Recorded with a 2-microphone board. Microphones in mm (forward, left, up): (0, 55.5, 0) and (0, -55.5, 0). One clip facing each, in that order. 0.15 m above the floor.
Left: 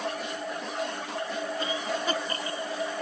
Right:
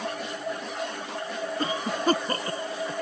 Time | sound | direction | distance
1.6 | a cough | 45° right (ahead or behind) | ?